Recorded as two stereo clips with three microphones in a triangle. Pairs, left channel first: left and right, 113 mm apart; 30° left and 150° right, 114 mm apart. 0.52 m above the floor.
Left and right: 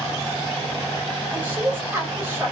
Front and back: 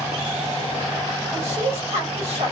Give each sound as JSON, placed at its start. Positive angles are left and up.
{"t": 1.3, "sound": "a woman speaking", "azimuth_deg": -160, "distance_m": 2.5}